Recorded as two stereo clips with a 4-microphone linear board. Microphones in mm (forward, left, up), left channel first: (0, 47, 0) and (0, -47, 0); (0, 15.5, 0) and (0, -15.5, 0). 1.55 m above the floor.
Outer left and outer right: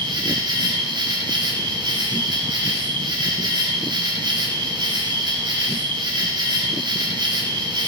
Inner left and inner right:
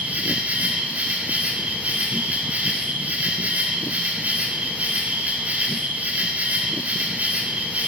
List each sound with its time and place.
0.0 s an insect: 55° right (ahead or behind), 3.5 m